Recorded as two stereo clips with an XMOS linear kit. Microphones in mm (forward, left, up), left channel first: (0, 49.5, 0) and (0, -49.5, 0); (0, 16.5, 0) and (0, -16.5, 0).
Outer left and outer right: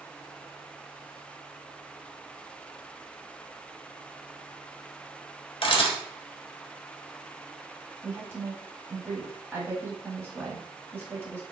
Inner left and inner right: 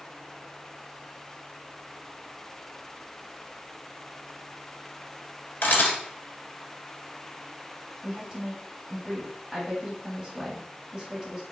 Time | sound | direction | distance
5.6 | a camera shutter | 60° left (ahead or behind) | 1.2 m
8.0 | a woman speaking | 25° right (ahead or behind) | 1.2 m